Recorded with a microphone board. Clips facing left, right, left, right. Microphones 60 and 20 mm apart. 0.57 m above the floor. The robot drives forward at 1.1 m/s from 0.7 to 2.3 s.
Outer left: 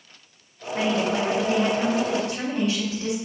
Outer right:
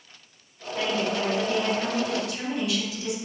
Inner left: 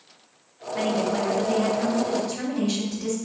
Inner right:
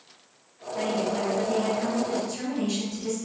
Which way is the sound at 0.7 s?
70° left (ahead or behind).